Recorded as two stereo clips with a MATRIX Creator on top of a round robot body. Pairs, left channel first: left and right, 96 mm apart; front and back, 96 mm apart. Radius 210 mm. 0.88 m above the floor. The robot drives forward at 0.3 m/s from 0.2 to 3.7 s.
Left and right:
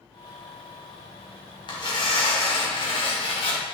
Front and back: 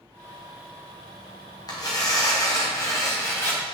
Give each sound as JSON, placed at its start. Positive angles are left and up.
{"t": 1.7, "sound": "tearing paper", "azimuth_deg": 50, "distance_m": 2.0}